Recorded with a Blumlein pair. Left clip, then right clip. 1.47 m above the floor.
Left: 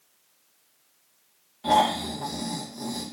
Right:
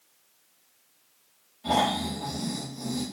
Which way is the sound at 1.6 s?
65° left.